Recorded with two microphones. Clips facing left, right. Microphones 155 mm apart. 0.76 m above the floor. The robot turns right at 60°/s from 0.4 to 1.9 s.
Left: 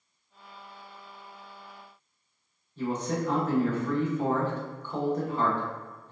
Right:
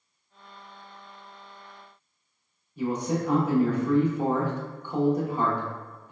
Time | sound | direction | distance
2.8 | a man speaking | 10° right (ahead or behind) | 0.7 m